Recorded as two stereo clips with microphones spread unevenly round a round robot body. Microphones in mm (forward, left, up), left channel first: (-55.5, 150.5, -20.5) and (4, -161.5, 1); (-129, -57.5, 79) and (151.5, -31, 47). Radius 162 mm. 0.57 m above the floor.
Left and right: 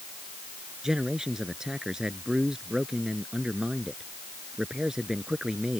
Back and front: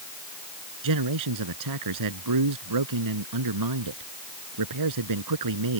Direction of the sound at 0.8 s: 10° left.